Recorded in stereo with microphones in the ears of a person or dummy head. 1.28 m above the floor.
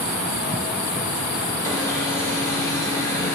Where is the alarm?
15° left (ahead or behind), 4.5 m.